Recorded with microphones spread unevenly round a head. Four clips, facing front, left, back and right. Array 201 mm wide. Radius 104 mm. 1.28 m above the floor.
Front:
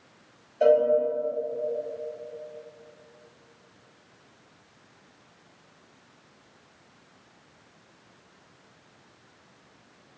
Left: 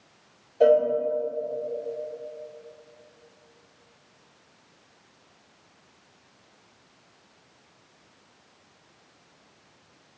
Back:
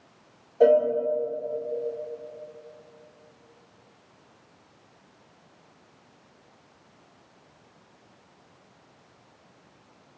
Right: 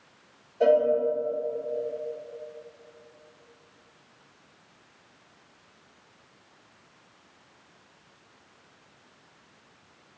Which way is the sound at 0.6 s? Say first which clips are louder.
Left 2 dB, back 2 dB; 165° left.